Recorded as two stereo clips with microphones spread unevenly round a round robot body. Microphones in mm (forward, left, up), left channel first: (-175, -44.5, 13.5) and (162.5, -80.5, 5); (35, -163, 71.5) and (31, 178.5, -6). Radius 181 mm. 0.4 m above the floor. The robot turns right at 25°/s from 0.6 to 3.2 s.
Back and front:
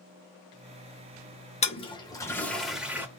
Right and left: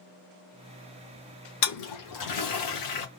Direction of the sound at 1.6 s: 120° right.